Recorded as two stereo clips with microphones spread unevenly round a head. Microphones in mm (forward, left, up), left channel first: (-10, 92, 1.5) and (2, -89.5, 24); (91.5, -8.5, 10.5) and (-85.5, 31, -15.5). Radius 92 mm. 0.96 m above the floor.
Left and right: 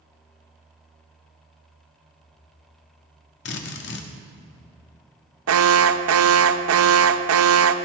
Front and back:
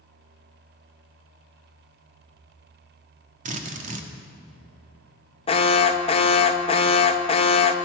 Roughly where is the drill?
Behind left.